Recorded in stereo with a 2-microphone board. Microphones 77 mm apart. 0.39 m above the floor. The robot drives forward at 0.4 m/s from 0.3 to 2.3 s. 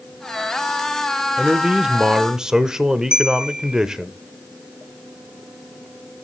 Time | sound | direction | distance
1.4 | a man speaking | 10° right (ahead or behind) | 0.8 m
3.1 | a bell | 10° right (ahead or behind) | 0.8 m